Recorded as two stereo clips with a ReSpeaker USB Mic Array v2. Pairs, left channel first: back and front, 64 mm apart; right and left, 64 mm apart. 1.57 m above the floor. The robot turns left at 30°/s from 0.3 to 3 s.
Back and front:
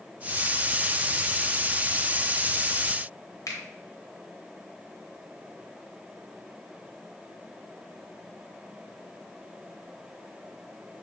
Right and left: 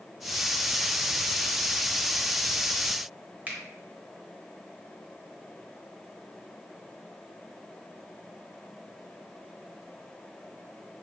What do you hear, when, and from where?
3.5 s a finger snap: 155° left, 0.7 m